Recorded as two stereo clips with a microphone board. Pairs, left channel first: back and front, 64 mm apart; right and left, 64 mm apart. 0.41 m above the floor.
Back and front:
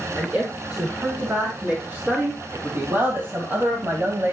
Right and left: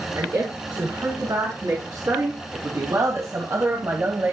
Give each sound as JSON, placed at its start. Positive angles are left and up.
{"t": 0.1, "sound": "a woman speaking", "azimuth_deg": 70, "distance_m": 5.0}